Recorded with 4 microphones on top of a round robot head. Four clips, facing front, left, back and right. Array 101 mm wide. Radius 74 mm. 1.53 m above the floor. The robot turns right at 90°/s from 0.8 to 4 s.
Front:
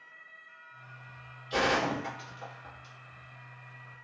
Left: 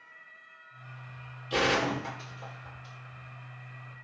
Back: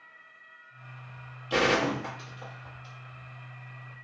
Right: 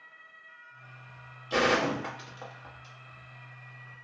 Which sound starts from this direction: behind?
A gunshot, at 1.5 s.